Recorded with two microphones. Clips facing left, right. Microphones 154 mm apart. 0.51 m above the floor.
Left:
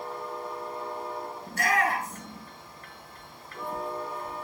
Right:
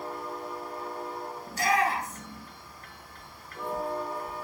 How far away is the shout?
About 6 m.